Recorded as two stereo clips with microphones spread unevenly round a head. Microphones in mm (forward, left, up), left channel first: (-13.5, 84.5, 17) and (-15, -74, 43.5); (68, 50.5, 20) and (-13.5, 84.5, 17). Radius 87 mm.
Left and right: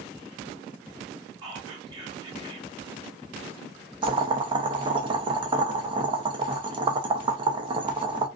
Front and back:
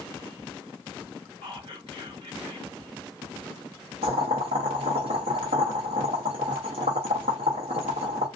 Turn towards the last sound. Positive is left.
turn(degrees=-150)